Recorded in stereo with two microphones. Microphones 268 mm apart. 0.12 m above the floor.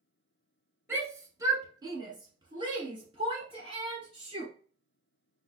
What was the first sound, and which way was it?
A shout, 10° right (ahead or behind).